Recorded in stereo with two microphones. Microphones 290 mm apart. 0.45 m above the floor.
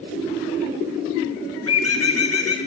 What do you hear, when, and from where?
1.7 s a bird: 55° left (ahead or behind), 0.6 m